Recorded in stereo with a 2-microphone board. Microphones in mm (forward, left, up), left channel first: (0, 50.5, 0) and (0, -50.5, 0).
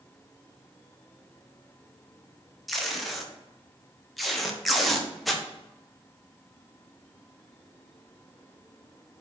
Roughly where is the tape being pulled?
Centre.